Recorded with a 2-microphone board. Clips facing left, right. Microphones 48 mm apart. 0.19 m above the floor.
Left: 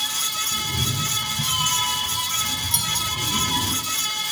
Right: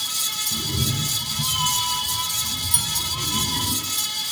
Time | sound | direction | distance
0.5 | a cat meowing | 35° right (ahead or behind) | 1.0 m
2.7 | a clink | 10° right (ahead or behind) | 1.1 m